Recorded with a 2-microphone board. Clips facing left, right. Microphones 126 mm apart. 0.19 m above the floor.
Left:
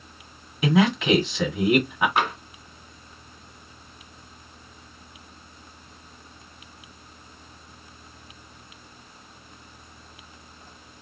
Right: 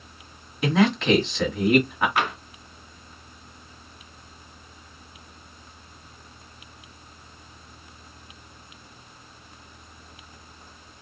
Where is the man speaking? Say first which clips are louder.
Even; 5° left (ahead or behind), 1.6 m.